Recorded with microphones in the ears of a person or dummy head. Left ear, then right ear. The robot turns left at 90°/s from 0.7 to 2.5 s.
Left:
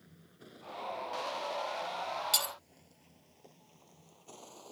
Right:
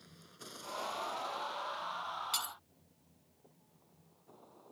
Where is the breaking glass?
15° left (ahead or behind); by 2.5 s centre (ahead or behind).